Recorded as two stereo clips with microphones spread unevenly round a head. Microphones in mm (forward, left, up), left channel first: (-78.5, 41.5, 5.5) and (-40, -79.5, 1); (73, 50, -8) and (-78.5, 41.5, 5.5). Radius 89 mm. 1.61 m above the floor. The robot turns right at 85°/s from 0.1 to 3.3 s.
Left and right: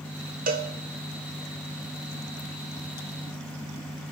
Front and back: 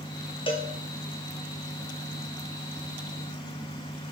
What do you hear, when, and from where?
0.5 s a cowbell: 60° right, 0.8 m; by 0.7 s 45° right, 0.8 m